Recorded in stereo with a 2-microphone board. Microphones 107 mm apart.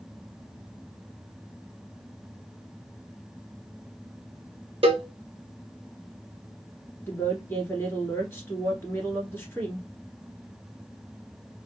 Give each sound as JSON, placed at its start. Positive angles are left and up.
{"t": 4.8, "sound": "a cowbell", "side_deg": -60, "distance_m": 0.6}
{"t": 7.1, "sound": "a woman speaking", "side_deg": 20, "distance_m": 1.8}